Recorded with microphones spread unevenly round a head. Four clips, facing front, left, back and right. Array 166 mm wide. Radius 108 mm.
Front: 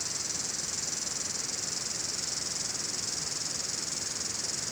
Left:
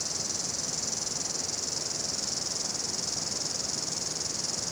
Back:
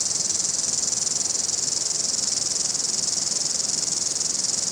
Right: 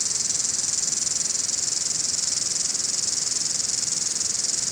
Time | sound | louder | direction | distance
0.0 | an insect | left 1 dB, back 4 dB | 155° left | 0.7 m